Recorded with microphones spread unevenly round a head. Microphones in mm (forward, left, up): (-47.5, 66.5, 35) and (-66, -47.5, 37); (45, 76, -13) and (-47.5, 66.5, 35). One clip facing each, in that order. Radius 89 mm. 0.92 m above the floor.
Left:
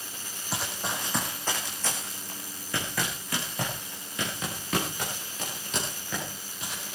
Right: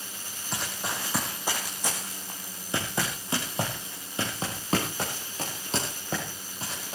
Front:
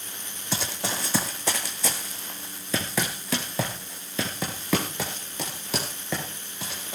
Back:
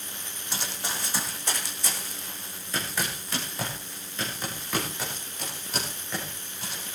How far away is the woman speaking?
I don't hear a woman speaking.